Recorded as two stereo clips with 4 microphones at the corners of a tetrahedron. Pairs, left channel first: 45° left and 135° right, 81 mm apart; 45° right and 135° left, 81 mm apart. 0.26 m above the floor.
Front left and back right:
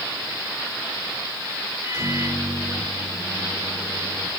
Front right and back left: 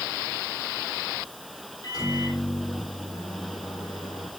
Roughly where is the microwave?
Right.